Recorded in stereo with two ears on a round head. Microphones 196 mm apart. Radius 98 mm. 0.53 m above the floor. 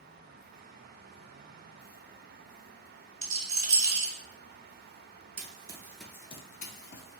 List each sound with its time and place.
3.2 s a rattle: 30° right (ahead or behind), 1.4 m
5.4 s running footsteps: 30° right (ahead or behind), 0.6 m; by 7.2 s 55° left (ahead or behind), 0.8 m